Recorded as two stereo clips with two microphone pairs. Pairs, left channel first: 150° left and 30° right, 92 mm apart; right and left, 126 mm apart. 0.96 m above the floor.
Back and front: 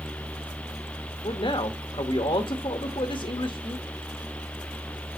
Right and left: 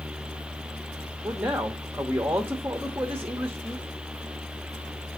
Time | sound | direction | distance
1.2 | a man speaking | 165° left | 1.1 m